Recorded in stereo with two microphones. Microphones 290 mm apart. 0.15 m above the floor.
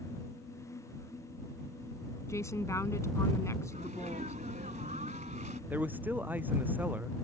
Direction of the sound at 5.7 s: 5° right (ahead or behind).